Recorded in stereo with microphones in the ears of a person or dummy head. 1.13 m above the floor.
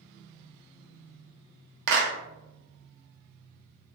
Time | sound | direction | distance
1.9 | a clap | 70° right (ahead or behind) | 0.6 m